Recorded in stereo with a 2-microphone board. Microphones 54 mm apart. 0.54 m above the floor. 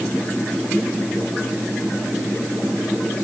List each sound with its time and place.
Only background noise.